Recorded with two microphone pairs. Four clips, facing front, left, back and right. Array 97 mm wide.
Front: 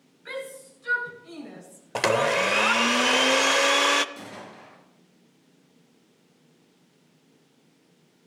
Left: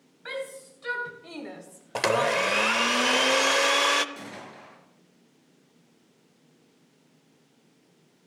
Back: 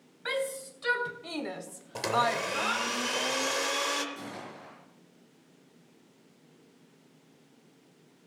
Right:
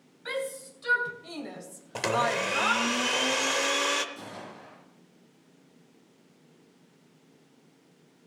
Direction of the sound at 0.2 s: 170° left.